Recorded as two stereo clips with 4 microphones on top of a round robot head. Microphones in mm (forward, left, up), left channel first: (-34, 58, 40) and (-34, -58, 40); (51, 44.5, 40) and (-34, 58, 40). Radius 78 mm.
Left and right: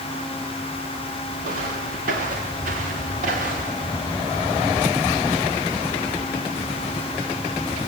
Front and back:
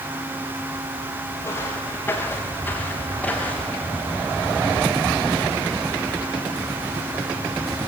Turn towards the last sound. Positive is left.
turn(degrees=-95)